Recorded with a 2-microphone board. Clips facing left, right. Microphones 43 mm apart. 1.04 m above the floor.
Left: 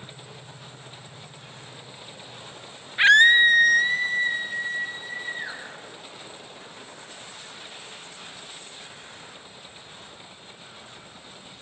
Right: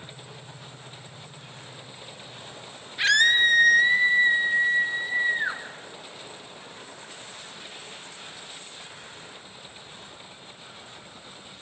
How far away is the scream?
About 1.0 m.